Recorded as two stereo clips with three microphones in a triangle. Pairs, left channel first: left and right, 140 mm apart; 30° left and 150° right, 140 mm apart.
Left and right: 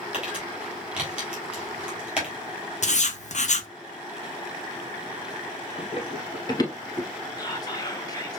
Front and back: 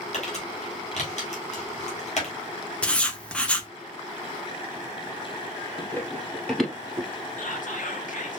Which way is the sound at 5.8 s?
95° left.